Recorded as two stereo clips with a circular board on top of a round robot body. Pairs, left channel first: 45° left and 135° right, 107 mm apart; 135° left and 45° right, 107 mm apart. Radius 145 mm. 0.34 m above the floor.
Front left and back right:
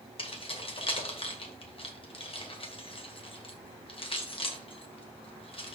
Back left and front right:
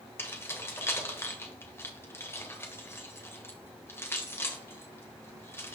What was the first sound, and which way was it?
Keys jangling, 70° left.